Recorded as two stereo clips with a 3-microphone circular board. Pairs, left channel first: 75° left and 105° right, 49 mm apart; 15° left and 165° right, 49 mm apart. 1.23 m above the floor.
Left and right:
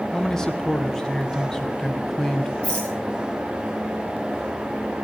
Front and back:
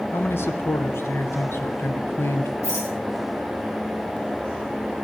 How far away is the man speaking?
About 0.9 m.